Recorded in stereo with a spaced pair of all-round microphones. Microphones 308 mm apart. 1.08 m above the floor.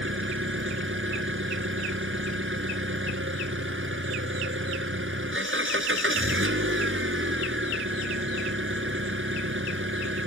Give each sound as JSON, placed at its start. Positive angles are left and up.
{"t": 0.0, "sound": "an engine running", "side_deg": -40}